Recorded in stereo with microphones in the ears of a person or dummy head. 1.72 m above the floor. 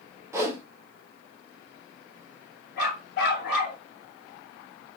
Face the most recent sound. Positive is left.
turn(degrees=55)  # may be behind; listen again after turning